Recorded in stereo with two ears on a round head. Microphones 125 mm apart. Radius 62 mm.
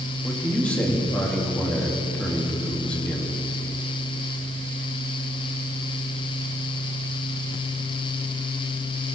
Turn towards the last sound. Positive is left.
turn(degrees=10)  # may be behind; listen again after turning